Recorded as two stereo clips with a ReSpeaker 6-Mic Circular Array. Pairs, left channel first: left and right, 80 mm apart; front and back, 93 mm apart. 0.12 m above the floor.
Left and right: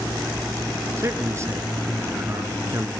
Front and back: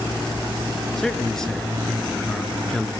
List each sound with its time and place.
1.0 s a man speaking: 80° right, 1.7 m